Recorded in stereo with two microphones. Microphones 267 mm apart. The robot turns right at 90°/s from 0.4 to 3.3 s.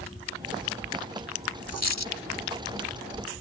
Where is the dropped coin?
60° left; by 2.1 s 100° left.